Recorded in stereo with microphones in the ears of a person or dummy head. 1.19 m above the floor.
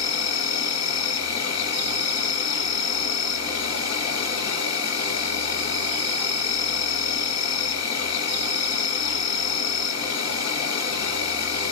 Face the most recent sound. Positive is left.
turn(degrees=65)  # may be behind; listen again after turning